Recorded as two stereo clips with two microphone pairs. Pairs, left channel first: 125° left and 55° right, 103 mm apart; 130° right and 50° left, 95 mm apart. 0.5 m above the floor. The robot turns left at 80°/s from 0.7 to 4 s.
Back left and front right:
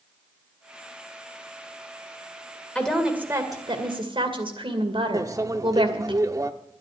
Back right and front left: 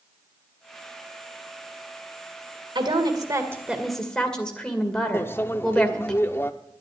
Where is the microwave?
80° right, 0.6 m.